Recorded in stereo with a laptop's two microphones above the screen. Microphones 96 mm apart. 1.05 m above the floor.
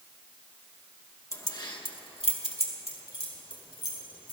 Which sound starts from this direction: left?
Keys jangling, at 1.3 s.